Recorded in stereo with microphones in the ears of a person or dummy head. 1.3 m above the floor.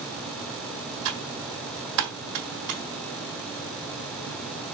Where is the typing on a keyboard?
55° right (ahead or behind), 1.6 m.